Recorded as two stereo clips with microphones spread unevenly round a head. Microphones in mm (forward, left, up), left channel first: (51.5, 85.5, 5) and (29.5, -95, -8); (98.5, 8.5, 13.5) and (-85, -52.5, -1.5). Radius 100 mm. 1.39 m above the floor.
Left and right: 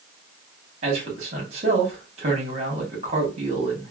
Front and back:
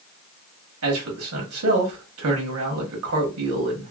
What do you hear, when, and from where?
0.8 s a man speaking: 160° right, 1.3 m